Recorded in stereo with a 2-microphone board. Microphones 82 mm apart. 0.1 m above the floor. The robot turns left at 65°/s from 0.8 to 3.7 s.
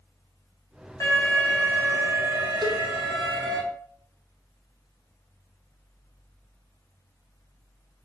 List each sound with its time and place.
1.0 s an alarm: 35° left, 4 m; by 3.6 s 130° right, 4 m
2.6 s a cowbell: 70° right (ahead or behind), 4 m; by 2.8 s 65° right (ahead or behind), 4 m